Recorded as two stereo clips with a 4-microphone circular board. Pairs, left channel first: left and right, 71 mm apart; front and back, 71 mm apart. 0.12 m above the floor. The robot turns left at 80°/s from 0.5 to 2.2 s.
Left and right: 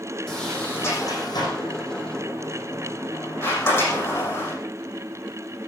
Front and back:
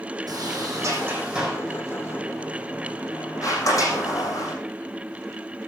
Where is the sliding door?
175° left, 6.5 m; by 4.5 s 40° left, 6.5 m.